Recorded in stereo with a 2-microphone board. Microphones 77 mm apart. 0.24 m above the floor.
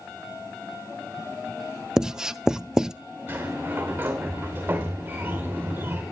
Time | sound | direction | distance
2.0 | writing | 5° right (ahead or behind) | 0.5 m
3.3 | a sliding door | 25° right (ahead or behind) | 3.5 m